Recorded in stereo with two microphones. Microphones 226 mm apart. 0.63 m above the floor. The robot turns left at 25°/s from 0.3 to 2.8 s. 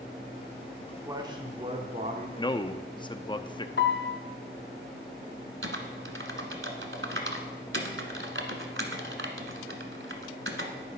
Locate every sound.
0.8 s a man speaking: 10° right, 1.4 m; by 2.3 s 45° right, 1.4 m
2.4 s a man speaking: 20° left (ahead or behind), 0.6 m
3.8 s a piano: 60° left (ahead or behind), 1.0 m
5.6 s typing on a keyboard: 70° right (ahead or behind), 1.4 m